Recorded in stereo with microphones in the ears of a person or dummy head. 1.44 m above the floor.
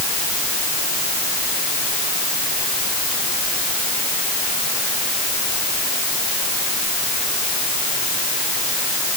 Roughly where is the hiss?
I don't hear a hiss.